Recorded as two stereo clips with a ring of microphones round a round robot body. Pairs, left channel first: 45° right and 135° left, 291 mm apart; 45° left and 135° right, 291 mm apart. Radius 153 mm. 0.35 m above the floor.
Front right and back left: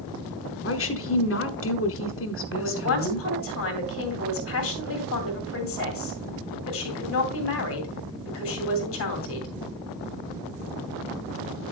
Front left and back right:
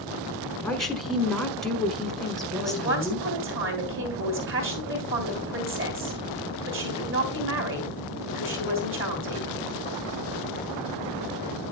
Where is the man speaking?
85° right, 3 m.